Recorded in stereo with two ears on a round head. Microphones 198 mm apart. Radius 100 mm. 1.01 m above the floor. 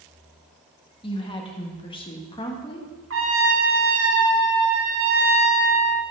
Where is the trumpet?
60° right (ahead or behind), 1.5 m.